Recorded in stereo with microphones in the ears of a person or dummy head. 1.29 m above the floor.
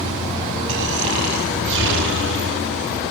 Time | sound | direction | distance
0.7 | snoring | 65° right (ahead or behind) | 5.5 m